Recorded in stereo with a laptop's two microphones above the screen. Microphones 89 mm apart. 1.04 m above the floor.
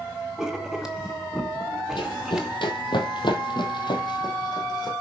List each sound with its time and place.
0.4 s writing: 5° right (ahead or behind), 1.2 m
2.0 s running footsteps: 65° left (ahead or behind), 2 m; by 4.9 s 50° left (ahead or behind), 2.5 m